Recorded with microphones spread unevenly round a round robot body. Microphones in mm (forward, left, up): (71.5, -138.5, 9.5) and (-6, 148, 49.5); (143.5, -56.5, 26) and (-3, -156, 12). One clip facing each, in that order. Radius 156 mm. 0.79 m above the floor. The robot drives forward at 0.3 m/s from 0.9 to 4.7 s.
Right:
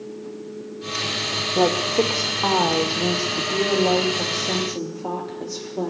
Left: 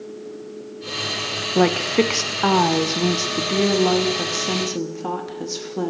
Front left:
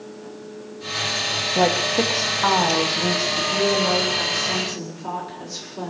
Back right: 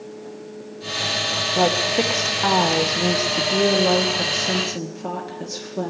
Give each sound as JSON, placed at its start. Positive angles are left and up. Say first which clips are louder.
{"t": 1.6, "sound": "a woman speaking", "louder": "left 2 dB, even", "azimuth_deg": 120, "distance_m": 0.6}